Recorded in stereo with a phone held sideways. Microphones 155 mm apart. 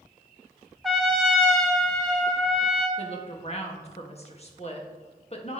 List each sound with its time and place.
0.8 s a trumpet: centre (ahead or behind), 1.3 m
3.0 s a woman speaking: 40° left (ahead or behind), 1.1 m